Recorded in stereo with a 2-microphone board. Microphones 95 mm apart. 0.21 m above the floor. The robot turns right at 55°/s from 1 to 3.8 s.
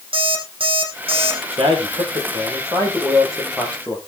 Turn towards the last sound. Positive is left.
turn(degrees=20)